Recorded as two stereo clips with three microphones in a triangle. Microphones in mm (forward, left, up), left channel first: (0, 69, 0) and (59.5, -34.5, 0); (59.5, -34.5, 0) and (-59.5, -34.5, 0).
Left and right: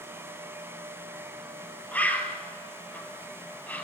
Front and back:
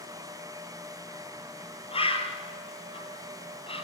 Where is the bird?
40° left, 2.5 m.